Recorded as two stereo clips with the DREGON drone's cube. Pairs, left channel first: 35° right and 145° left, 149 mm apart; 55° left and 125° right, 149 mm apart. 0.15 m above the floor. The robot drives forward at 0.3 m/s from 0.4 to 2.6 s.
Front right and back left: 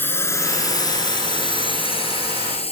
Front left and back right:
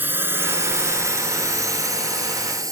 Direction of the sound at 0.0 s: 80° right.